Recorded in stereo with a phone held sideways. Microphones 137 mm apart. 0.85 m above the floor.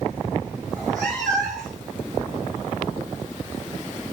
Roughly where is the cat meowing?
Centre.